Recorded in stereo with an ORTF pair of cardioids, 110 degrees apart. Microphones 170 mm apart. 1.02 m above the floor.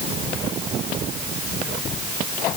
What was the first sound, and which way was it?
Only background noise.